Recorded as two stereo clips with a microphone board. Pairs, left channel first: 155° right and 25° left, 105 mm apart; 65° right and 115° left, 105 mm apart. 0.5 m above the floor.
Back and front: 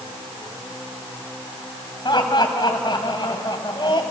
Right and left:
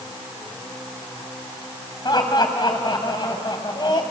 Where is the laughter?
115° right, 3 m.